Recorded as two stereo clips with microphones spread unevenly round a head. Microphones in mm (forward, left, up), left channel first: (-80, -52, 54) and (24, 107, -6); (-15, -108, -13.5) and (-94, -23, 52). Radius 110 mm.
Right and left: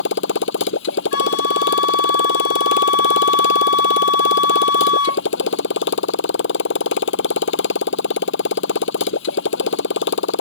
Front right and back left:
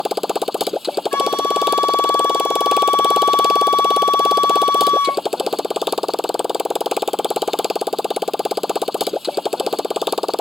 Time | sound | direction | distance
0.0 | a motorcycle | 145° right | ?
1.1 | a flute | 125° right | ?